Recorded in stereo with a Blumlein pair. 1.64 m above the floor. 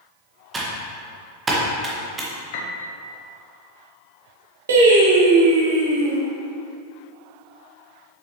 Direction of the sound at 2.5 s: 50° left.